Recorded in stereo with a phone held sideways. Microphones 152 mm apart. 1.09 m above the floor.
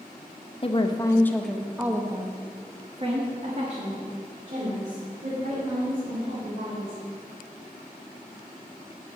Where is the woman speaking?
40° left (ahead or behind), 0.9 m; by 7.0 s 65° right (ahead or behind), 4 m.